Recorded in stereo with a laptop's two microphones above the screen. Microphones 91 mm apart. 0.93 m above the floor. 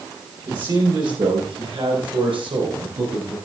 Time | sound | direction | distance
0.5 | a man speaking | 50° right (ahead or behind) | 4.5 m